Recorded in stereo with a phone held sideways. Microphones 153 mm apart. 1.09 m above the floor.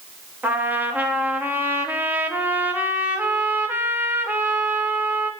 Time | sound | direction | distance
0.4 | a trumpet | 10° right (ahead or behind) | 0.6 m